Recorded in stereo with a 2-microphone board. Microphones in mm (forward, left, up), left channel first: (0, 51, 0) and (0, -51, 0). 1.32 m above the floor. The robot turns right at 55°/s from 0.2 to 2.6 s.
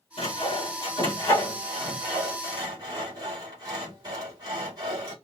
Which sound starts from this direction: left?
Sawing, at 0.2 s.